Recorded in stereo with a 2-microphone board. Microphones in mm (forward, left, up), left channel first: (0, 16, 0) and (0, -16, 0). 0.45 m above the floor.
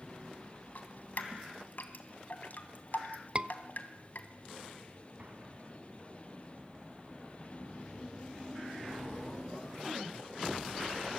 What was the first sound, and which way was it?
Dripping, 60° left (ahead or behind).